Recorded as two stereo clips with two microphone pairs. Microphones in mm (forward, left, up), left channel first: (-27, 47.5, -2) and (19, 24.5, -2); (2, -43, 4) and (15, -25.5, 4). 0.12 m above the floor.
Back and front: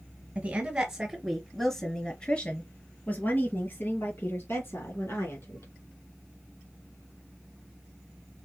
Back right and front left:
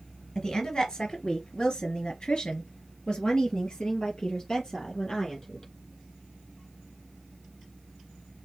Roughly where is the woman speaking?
Right.